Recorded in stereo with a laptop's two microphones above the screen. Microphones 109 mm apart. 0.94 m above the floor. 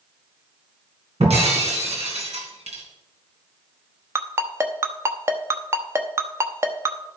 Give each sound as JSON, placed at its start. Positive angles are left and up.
{"t": 1.2, "sound": "breaking glass", "side_deg": -75, "distance_m": 2.5}
{"t": 4.2, "sound": "a ringtone", "side_deg": -25, "distance_m": 0.9}